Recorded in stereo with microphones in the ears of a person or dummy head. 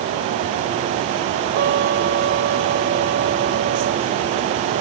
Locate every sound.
1.6 s a trumpet: 55° right (ahead or behind)